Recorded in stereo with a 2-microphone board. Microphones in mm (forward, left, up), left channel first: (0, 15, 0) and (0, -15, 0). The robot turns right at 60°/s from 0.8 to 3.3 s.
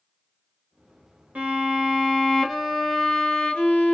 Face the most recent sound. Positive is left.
turn(degrees=50)